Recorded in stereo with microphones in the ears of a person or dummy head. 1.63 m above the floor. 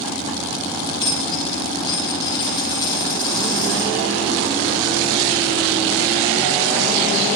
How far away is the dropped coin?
About 3.5 m.